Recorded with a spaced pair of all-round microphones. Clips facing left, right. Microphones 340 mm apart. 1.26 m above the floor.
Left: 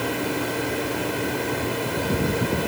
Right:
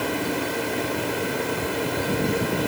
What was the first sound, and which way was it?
Only background noise.